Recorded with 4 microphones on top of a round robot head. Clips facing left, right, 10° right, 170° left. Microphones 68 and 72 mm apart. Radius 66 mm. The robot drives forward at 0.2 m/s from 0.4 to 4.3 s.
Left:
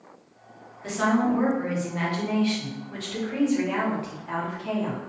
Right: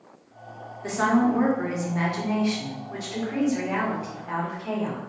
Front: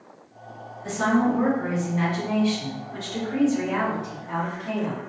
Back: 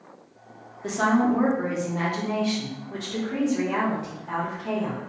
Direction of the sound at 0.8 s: 155° right.